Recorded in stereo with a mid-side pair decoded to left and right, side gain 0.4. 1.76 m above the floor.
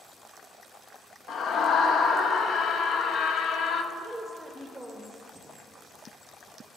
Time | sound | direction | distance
1.3 | a scream | 70° left | 0.8 m
3.9 | a woman speaking | 5° right | 0.8 m
5.3 | breathing | 5° left | 3 m